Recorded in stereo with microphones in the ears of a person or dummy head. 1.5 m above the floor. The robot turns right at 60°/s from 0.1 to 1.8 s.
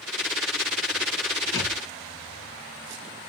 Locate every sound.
1.5 s a thud: 15° left (ahead or behind), 4 m; by 1.8 s 30° left (ahead or behind), 4 m